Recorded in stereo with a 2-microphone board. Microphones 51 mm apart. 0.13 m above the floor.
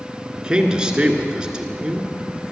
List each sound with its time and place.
0.3 s a man speaking: 15° right (ahead or behind), 1.5 m